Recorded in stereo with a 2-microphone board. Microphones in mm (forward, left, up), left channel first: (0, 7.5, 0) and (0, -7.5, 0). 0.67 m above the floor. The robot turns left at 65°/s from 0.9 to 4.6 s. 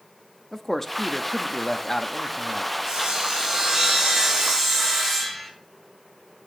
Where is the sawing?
50° right, 7.5 m; by 5.5 s 165° right, 7.5 m.